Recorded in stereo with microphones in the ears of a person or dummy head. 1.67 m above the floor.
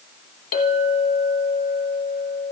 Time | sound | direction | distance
0.5 | a clink | 35° left (ahead or behind) | 1.3 m